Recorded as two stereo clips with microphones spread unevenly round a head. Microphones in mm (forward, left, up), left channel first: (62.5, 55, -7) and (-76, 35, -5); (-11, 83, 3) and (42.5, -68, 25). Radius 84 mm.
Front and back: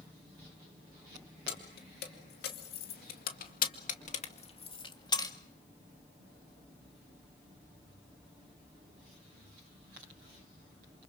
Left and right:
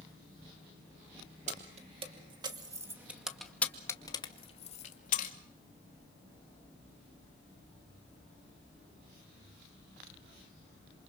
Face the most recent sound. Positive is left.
turn(degrees=70)